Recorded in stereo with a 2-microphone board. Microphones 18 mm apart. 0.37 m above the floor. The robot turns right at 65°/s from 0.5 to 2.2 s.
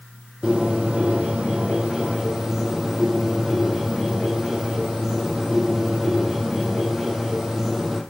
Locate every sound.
0.4 s a bird: 135° right, 3.5 m; by 8.0 s 25° right, 3.5 m